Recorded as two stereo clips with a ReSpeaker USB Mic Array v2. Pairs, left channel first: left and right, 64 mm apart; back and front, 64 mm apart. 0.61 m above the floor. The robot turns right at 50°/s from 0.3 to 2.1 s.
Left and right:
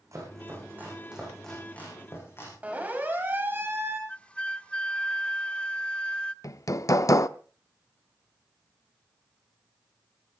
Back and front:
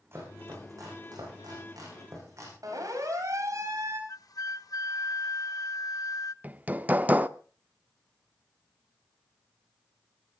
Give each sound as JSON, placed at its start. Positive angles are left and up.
{"t": 0.1, "sound": "chopping", "azimuth_deg": -50, "distance_m": 9.5}
{"t": 2.6, "sound": "a siren", "azimuth_deg": -25, "distance_m": 3.5}
{"t": 4.1, "sound": "a flute", "azimuth_deg": 160, "distance_m": 0.5}
{"t": 6.4, "sound": "hammering", "azimuth_deg": 60, "distance_m": 0.5}